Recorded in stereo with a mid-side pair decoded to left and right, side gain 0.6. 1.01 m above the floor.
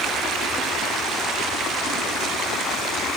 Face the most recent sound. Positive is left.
No sound to turn to.